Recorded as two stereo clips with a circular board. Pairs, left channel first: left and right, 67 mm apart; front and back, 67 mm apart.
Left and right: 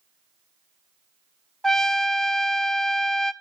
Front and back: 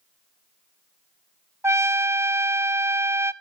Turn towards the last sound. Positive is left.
turn(degrees=170)